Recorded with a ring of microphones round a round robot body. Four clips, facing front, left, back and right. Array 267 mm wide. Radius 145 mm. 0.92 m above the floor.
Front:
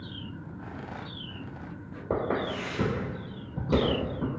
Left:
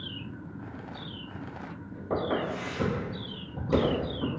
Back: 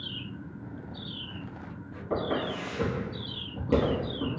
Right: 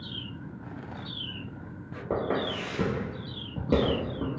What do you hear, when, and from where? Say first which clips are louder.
2.1 s footsteps: even, front 1 dB; 35° right, 1.4 m; by 4.3 s 120° right, 1.6 m